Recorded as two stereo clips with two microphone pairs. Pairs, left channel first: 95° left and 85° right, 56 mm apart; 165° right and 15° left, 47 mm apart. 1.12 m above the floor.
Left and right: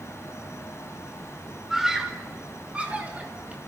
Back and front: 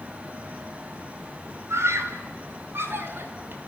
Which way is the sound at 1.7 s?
5° right.